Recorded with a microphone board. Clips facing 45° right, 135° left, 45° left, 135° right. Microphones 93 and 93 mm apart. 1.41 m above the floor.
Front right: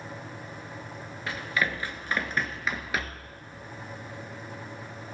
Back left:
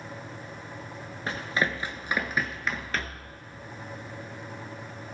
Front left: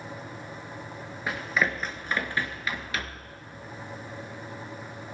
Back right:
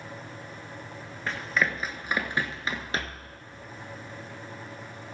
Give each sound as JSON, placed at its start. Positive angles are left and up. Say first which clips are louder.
{"t": 1.3, "sound": "running footsteps", "louder": "back left 1 dB, even", "azimuth_deg": 120, "distance_m": 1.6}